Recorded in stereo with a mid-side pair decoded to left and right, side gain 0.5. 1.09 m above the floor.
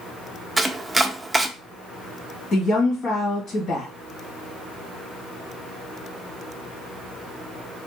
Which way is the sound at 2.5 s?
45° left.